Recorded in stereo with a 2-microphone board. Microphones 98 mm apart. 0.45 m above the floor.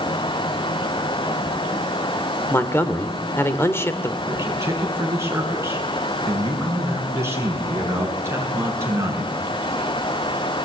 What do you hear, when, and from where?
2.5 s a man speaking: 25° left (ahead or behind), 1.7 m
4.3 s a man speaking: 25° right (ahead or behind), 6 m